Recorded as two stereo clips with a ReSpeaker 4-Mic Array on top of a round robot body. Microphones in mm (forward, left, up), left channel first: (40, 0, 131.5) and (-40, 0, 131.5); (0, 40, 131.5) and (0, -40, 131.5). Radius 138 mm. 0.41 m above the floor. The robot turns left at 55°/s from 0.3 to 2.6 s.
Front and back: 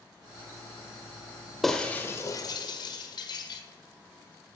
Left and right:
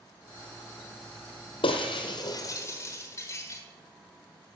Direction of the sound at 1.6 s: 90° left.